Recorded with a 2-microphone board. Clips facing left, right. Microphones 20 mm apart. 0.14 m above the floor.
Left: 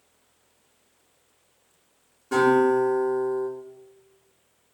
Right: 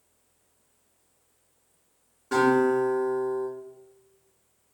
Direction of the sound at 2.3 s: 20° right (ahead or behind).